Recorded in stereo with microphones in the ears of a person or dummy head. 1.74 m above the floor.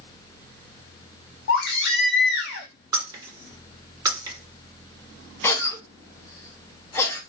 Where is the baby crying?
60° left (ahead or behind), 0.9 m.